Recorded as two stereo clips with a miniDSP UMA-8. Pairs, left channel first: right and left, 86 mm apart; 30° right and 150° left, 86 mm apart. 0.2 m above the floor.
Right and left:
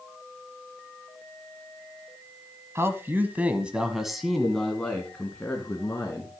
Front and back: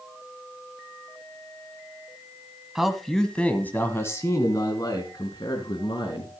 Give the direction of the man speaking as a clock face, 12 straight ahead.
10 o'clock.